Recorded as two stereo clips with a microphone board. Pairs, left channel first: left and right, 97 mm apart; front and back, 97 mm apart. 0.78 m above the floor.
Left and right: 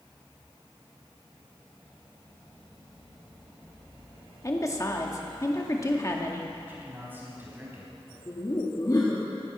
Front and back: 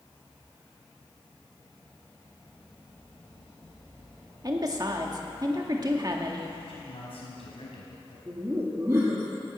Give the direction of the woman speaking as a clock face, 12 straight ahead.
7 o'clock.